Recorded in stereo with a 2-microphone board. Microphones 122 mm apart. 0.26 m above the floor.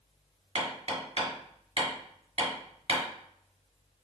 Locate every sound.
0.6 s hammering: 50° right (ahead or behind), 2 m